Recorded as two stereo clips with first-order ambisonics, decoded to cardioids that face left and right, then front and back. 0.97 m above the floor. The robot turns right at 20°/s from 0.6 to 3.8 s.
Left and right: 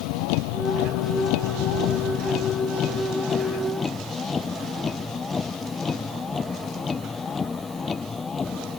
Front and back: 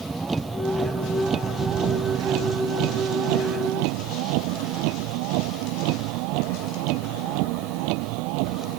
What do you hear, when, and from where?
0.0 s a vehicle: 100° left; by 8.8 s 160° left